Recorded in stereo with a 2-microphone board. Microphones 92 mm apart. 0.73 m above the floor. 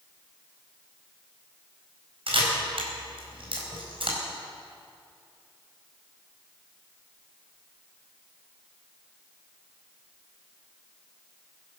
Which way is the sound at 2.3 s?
70° right (ahead or behind).